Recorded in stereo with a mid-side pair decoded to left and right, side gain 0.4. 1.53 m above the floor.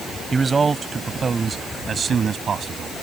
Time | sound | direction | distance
0.3 | a man speaking | 30° right | ?